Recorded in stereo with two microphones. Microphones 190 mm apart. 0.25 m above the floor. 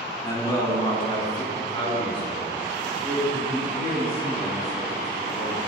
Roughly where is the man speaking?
Left.